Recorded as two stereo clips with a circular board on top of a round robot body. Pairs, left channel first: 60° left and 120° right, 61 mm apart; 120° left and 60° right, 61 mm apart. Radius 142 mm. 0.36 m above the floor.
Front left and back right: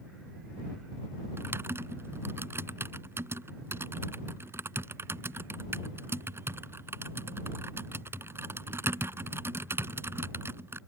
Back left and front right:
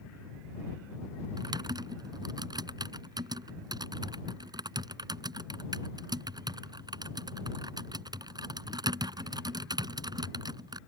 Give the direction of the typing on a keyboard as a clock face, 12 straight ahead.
2 o'clock.